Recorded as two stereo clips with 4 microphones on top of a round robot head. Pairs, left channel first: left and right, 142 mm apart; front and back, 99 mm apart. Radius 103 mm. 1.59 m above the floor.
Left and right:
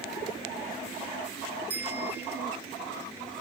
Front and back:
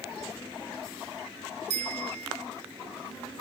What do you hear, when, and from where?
1.7 s a bicycle bell: 170° right